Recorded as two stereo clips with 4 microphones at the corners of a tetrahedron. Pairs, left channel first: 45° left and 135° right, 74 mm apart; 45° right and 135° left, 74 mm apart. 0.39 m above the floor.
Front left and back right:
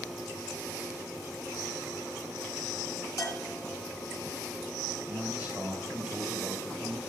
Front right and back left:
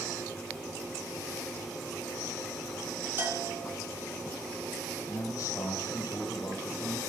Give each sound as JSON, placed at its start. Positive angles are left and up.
{"t": 3.2, "sound": "a bell", "azimuth_deg": 75, "distance_m": 3.0}
{"t": 5.1, "sound": "a man speaking", "azimuth_deg": -70, "distance_m": 2.5}